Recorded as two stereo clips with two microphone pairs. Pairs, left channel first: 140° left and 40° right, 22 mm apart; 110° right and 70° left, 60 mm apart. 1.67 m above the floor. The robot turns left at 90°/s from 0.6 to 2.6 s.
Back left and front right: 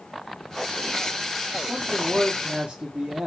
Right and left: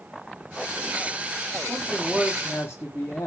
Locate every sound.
1.7 s a man speaking: 25° left, 1.8 m; by 3.3 s 60° right, 1.8 m